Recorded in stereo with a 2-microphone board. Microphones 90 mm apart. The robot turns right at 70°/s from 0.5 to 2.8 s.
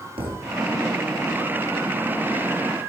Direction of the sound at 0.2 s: 85° right.